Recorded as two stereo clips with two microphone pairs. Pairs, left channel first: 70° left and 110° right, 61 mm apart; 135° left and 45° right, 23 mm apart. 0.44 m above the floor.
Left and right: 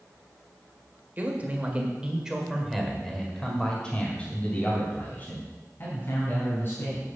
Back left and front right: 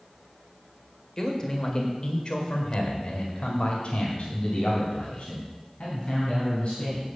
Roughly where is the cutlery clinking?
No cutlery clinking in this recording.